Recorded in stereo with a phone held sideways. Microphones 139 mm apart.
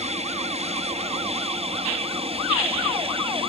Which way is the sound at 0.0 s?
55° right (ahead or behind).